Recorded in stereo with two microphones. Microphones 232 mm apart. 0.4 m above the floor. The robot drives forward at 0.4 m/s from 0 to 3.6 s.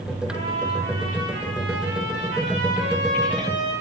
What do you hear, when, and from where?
0.3 s a trumpet: 70° right (ahead or behind), 4.5 m; by 3.7 s 55° right (ahead or behind), 5 m